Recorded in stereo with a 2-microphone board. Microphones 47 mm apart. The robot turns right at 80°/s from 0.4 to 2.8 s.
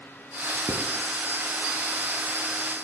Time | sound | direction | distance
0.7 | writing | 75° right (ahead or behind) | 1.4 m